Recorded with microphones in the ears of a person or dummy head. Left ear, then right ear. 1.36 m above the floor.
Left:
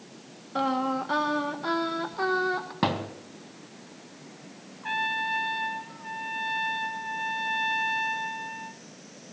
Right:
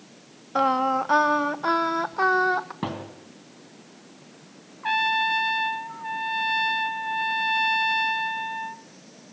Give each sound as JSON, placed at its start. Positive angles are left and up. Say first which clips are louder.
{"t": 0.6, "sound": "singing", "louder": "right 6 dB", "side_deg": -30, "distance_m": 1.0}
{"t": 2.8, "sound": "a thud", "louder": "left 5 dB", "side_deg": 25, "distance_m": 2.5}
{"t": 4.8, "sound": "a trumpet", "louder": "right 6 dB", "side_deg": -25, "distance_m": 0.6}